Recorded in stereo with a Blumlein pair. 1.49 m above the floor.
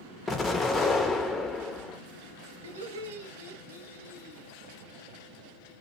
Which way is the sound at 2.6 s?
65° right.